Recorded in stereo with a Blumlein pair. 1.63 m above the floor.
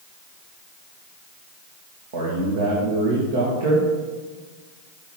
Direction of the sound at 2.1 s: 50° right.